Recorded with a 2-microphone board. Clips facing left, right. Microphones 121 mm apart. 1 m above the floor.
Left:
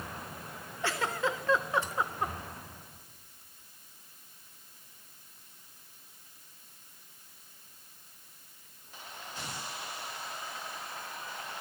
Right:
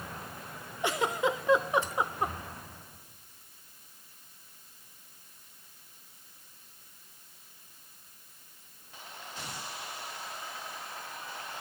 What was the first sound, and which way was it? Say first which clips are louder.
A giggle: right 3 dB; 15° right (ahead or behind).